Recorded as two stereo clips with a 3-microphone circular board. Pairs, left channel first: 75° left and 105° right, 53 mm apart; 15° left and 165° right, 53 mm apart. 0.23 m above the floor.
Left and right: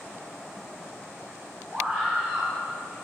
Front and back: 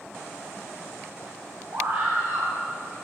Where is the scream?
165° right, 2.5 m.